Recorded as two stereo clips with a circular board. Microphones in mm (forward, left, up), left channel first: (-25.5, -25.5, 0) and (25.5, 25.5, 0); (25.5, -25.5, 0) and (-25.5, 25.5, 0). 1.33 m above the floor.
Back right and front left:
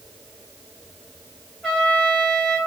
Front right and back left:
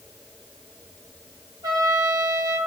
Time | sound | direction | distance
1.6 | a trumpet | 135° left | 4 m